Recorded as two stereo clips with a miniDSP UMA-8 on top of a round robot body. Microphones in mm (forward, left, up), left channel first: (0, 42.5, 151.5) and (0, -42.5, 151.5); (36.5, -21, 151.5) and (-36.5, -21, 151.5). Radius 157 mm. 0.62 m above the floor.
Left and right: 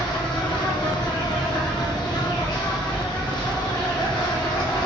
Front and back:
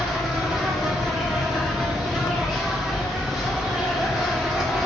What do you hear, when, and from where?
0.0 s an insect: 95° left, 1.2 m